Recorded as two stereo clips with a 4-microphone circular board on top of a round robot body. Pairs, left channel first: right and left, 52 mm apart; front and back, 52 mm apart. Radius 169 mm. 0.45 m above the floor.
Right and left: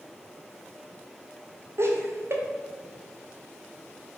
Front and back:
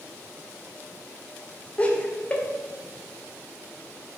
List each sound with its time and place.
1.8 s laughter: 65° left, 2 m